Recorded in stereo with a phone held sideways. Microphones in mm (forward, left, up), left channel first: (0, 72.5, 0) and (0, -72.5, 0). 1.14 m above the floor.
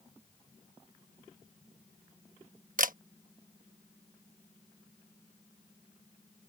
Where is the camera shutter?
60° right (ahead or behind).